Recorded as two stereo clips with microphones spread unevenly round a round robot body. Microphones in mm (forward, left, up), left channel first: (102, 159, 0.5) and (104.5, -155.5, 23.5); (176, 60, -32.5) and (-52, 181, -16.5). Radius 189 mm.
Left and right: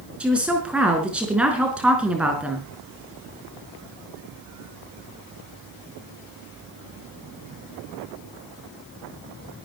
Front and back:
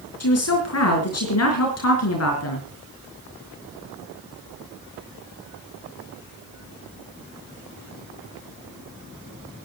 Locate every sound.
0.2 s a woman speaking: straight ahead, 4.5 m